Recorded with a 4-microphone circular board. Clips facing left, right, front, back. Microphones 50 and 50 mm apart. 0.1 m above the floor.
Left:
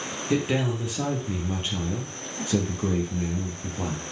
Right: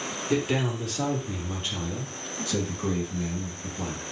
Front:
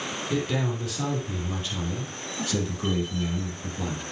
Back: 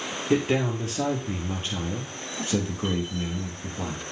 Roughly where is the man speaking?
Behind.